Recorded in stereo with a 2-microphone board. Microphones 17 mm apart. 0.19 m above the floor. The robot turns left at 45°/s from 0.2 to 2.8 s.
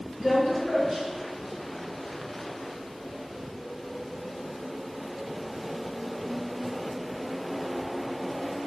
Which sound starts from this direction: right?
A woman speaking, at 0.2 s.